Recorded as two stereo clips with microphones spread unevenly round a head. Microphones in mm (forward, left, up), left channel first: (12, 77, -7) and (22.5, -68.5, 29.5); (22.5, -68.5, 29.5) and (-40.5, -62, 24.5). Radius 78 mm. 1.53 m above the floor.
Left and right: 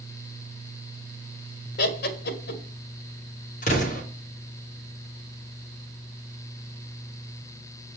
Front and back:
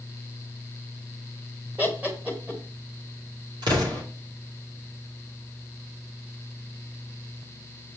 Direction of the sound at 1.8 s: 95° left.